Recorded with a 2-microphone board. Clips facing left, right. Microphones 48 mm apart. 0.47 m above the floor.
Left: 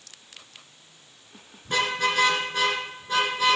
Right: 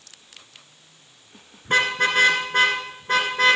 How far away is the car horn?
About 2.5 m.